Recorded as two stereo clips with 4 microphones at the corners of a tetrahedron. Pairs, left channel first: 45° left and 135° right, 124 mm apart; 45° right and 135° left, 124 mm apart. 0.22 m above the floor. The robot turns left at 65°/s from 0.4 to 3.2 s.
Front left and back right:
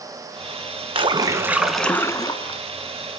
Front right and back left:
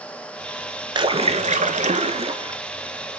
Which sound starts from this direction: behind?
A splash, at 0.9 s.